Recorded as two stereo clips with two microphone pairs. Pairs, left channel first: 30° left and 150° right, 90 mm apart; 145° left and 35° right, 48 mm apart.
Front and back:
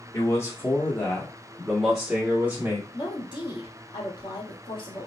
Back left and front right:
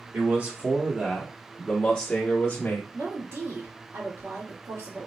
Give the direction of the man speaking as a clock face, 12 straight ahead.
12 o'clock.